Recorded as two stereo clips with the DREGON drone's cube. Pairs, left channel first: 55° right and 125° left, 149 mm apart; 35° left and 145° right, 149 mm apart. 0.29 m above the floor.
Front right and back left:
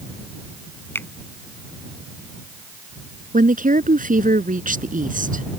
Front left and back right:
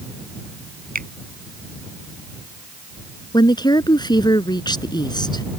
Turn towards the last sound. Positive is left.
turn(degrees=95)